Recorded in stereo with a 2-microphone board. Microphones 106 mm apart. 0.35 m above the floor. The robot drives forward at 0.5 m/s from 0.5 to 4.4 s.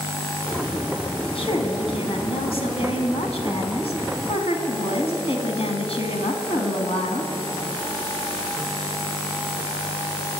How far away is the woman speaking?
About 3.5 m.